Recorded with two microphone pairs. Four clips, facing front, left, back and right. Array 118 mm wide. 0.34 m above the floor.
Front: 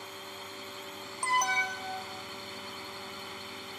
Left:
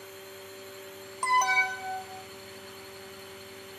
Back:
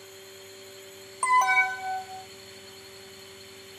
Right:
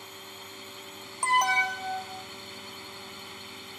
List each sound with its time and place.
0.0 s a drone: 25° right
1.2 s an alarm: 170° right